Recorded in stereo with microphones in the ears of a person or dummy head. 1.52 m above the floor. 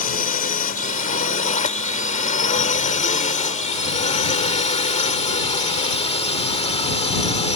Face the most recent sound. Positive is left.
turn(degrees=30)  # may be behind; listen again after turning